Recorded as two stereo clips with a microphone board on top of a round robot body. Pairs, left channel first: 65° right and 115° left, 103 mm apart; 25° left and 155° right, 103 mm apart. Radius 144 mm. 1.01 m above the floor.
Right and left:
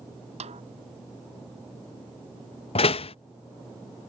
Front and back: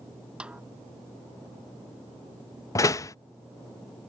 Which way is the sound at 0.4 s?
120° left.